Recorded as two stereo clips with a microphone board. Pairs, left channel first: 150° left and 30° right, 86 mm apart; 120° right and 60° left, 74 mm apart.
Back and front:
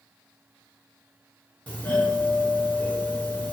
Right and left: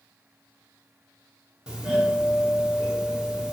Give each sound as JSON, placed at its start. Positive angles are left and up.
{"t": 1.7, "sound": "a doorbell", "azimuth_deg": 120, "distance_m": 1.4}